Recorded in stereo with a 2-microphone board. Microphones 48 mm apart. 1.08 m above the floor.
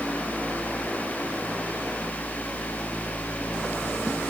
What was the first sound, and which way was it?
Only background noise.